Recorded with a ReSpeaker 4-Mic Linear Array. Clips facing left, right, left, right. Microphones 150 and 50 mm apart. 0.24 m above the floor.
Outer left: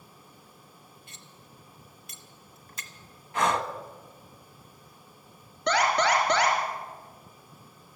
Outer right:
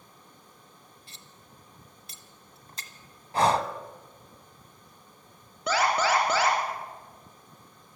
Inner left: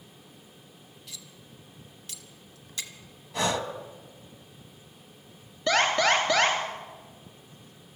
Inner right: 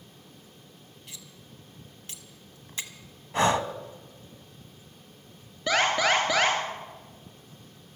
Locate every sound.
1.1 s cutlery clinking: 30° right (ahead or behind), 1.2 m
3.3 s breathing: 35° right (ahead or behind), 0.8 m
5.7 s an alarm: 5° right (ahead or behind), 3 m